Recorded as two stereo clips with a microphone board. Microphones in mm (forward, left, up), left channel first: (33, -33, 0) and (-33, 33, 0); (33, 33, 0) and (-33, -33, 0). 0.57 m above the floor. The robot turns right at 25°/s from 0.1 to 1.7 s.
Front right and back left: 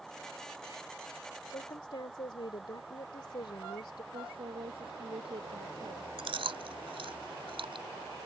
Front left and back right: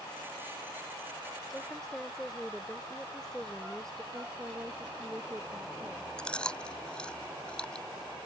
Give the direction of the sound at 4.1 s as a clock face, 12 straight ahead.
7 o'clock.